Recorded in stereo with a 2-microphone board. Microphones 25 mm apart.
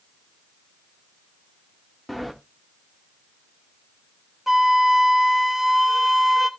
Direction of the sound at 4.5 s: 10° right (ahead or behind).